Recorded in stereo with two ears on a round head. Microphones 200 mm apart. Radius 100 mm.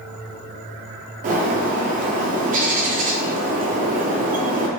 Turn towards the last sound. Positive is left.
turn(degrees=-35)  # may be behind; listen again after turning